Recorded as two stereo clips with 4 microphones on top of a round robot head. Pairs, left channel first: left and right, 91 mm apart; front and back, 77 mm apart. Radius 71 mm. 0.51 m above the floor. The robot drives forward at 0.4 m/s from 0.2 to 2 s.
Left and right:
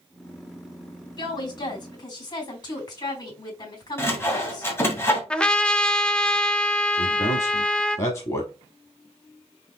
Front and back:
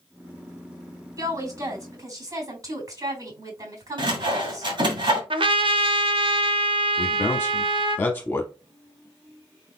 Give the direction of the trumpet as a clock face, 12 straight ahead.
6 o'clock.